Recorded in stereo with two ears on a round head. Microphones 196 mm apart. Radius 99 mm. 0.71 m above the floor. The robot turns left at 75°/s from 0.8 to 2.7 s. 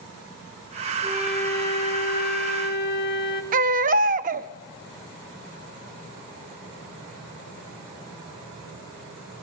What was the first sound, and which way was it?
A flute, 160° right.